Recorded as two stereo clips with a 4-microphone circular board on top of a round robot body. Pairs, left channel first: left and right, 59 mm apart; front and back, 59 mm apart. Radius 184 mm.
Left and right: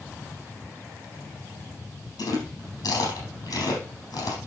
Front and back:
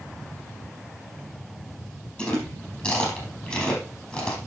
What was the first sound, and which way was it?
Chewing, 70° left.